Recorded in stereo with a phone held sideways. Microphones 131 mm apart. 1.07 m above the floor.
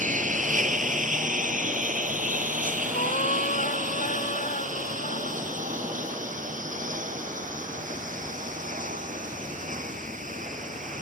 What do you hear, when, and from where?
0.0 s a lawn mower: 80° right; by 11.0 s 85° right
2.9 s a cat meowing: 80° left